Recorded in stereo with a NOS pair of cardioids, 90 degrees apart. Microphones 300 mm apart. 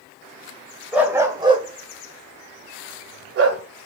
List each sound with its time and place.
0.9 s a dog barking: 5° right, 1.6 m; by 3.6 s 55° right, 2.0 m